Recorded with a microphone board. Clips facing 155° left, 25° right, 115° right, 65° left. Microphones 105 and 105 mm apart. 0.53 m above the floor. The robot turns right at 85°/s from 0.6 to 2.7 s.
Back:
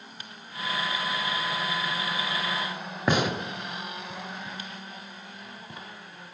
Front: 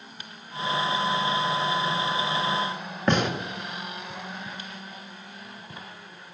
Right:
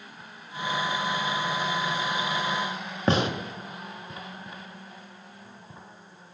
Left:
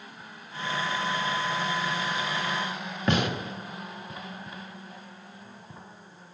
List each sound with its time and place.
3.1 s a gunshot: 125° right, 0.9 m